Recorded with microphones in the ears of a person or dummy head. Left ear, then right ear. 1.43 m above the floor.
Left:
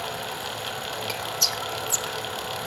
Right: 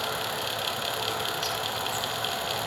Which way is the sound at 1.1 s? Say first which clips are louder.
Left 3 dB; 60° left (ahead or behind).